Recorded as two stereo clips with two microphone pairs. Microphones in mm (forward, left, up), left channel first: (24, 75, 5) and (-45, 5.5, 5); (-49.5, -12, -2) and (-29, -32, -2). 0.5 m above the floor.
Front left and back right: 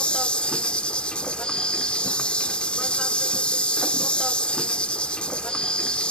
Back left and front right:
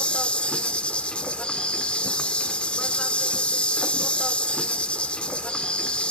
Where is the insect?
120° left, 1.0 m.